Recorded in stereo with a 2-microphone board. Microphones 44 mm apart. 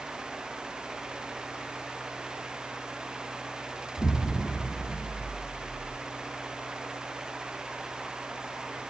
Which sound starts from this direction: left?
An explosion, at 4.0 s.